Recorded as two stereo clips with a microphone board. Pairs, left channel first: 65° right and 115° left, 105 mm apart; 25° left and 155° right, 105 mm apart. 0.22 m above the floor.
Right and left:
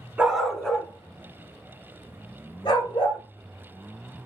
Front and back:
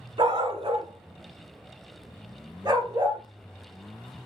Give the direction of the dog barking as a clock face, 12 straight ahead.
6 o'clock.